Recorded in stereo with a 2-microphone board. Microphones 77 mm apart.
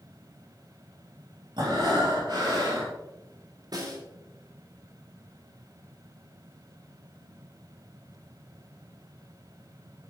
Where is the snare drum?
65° right (ahead or behind), 4 m.